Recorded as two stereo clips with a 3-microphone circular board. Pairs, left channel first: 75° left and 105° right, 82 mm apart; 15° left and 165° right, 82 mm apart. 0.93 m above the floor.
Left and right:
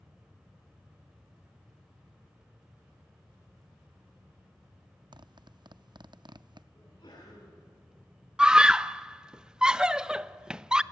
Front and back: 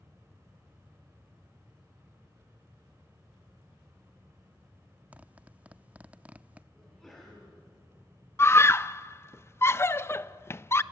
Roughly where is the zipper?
Right.